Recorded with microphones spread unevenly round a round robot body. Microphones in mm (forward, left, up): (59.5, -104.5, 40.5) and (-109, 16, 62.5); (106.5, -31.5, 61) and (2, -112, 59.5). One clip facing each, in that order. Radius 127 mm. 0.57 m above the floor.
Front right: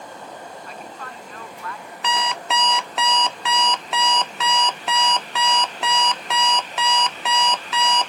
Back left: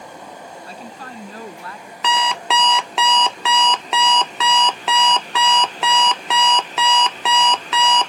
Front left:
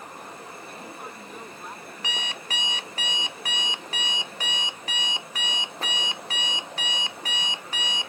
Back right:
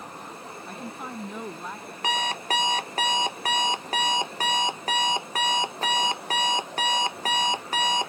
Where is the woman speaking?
155° right.